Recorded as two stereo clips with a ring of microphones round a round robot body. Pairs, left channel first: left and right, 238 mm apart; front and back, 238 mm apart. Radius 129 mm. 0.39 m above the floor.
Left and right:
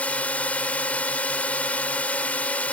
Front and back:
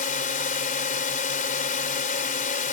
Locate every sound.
0.0 s a drone: 10° left